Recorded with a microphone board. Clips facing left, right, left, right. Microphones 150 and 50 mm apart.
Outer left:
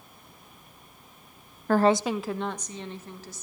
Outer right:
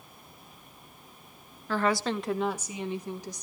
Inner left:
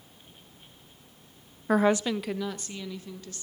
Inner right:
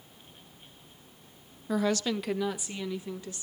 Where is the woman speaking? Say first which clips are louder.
Outer left 6 dB, inner left 5 dB; 55° left (ahead or behind), 0.5 m; by 3.4 s 15° right (ahead or behind), 3 m.